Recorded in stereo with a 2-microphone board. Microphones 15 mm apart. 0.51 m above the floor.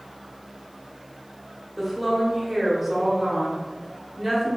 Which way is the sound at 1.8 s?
15° right (ahead or behind).